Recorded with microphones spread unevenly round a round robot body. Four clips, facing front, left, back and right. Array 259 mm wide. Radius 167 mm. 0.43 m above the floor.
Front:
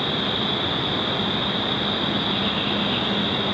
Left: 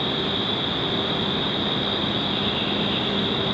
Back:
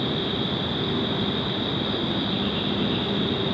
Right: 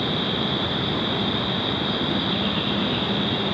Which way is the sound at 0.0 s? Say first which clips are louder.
Right 1 dB, front 1 dB; 155° left.